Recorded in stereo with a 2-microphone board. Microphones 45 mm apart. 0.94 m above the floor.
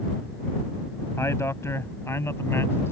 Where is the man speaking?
75° left (ahead or behind); by 2.9 s 60° left (ahead or behind).